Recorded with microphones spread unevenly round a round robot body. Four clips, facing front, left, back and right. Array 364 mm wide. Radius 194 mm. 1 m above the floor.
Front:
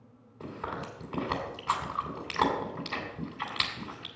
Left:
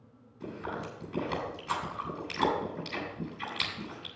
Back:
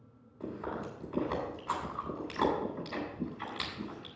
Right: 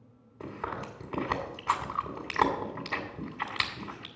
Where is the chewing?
60° right, 3 m.